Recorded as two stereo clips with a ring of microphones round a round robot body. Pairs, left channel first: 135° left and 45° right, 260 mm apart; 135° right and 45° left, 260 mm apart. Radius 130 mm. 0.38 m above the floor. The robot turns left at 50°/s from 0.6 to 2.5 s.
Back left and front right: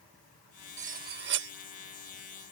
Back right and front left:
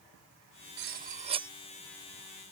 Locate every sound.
0.8 s cutlery clinking: 10° left; by 1.5 s 25° right